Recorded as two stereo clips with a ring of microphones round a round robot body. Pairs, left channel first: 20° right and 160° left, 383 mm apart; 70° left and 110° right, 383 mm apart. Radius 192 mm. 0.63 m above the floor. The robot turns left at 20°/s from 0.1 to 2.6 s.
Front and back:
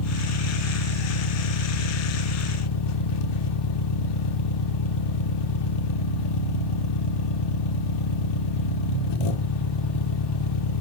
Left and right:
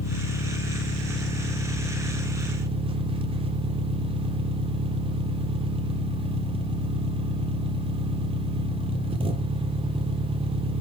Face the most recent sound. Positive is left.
turn(degrees=-35)